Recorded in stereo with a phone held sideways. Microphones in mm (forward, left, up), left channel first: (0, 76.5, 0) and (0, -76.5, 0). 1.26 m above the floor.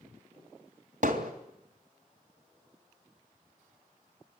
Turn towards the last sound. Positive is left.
turn(degrees=-55)  # may be behind; listen again after turning